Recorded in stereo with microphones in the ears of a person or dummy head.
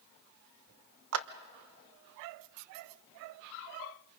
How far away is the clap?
About 0.8 m.